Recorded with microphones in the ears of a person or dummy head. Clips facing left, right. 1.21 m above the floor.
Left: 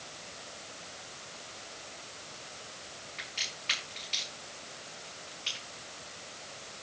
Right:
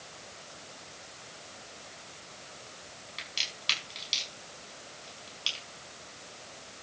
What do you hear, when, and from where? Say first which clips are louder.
3.2 s a crack: even; 55° right (ahead or behind), 6 m